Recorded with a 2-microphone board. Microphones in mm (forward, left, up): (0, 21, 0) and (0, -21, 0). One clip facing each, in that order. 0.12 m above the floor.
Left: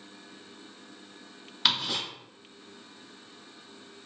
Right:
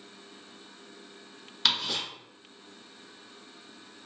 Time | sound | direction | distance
1.6 | ticking | 5° left (ahead or behind) | 1.7 m